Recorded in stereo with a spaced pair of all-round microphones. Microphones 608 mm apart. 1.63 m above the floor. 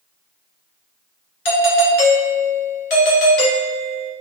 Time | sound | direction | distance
1.4 | a doorbell | 65° left (ahead or behind) | 1.4 m